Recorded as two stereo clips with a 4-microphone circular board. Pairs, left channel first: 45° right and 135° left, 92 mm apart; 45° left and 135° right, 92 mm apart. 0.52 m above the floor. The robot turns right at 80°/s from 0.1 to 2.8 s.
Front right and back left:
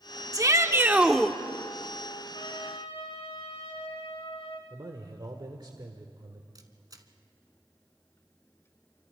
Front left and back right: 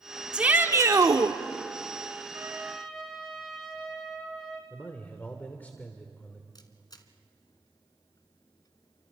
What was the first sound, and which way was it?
A shout, 150° left.